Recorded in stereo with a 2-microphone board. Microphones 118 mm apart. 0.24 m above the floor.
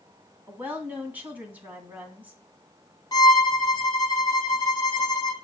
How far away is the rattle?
No rattle in this recording.